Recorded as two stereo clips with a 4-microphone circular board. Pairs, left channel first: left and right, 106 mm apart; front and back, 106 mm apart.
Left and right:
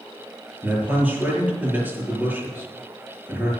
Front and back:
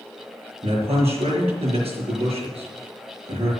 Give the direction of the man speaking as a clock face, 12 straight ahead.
5 o'clock.